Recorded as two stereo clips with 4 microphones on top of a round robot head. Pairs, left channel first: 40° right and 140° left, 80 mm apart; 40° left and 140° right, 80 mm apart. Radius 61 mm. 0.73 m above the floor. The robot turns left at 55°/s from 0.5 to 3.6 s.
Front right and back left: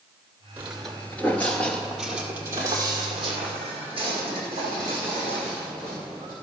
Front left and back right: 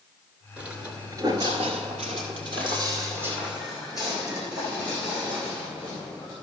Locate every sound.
0.6 s footsteps: 165° left, 0.7 m; by 6.3 s 140° left, 4.5 m